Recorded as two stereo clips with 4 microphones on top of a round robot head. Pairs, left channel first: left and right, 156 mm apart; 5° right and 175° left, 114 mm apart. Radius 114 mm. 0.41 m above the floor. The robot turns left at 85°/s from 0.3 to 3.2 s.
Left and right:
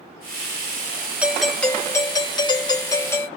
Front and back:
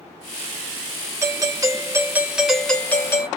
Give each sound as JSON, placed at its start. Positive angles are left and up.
{"t": 1.2, "sound": "a doorbell", "azimuth_deg": -160, "distance_m": 1.2}